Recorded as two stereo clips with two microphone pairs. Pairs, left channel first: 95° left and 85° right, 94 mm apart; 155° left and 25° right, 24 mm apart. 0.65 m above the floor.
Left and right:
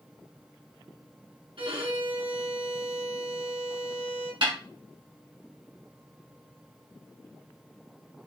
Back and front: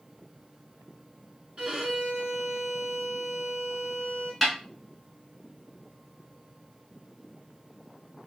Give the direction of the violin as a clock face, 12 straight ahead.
2 o'clock.